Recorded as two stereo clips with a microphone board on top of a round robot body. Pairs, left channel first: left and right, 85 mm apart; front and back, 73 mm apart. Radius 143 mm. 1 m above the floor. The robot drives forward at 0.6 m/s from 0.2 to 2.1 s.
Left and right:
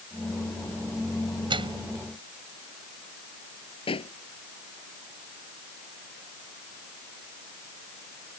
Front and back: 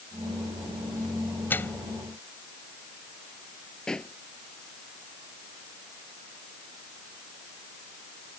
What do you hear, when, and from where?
1.5 s a microwave: 65° right
3.9 s a pop: 80° left